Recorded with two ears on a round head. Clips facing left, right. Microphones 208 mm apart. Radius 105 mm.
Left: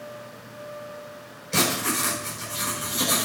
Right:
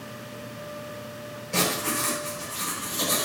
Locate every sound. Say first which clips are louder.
1.5 s writing: left 2 dB; 25° left (ahead or behind), 7.5 m